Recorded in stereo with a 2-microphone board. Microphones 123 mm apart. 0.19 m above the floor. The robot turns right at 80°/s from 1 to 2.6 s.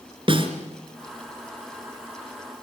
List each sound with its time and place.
0.3 s a snare drum: 45° right (ahead or behind), 3 m